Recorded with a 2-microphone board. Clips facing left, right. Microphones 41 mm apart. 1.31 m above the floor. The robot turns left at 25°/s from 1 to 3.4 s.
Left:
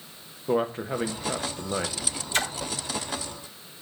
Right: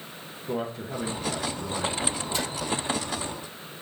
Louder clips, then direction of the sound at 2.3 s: Left 8 dB; 55° left (ahead or behind).